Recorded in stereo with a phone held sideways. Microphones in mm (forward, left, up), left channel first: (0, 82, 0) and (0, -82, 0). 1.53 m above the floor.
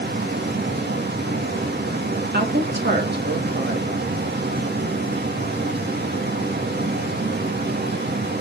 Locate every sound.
0.0 s a fan: 85° right, 2.5 m
2.3 s a woman speaking: 80° right, 2.5 m